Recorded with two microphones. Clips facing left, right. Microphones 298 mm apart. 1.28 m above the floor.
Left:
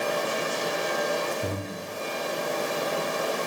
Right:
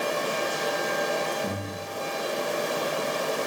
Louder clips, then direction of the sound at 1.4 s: Even; 55° left (ahead or behind).